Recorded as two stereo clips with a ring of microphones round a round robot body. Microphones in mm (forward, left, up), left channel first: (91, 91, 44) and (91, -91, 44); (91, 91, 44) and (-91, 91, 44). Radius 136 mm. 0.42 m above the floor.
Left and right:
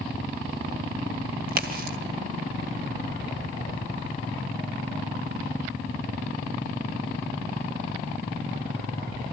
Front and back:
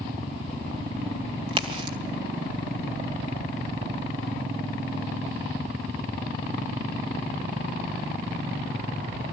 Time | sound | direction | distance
1.5 | a crack | 120° right | 2 m